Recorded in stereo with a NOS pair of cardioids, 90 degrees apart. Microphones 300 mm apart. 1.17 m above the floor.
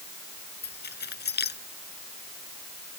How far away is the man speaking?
No man speaking in this recording.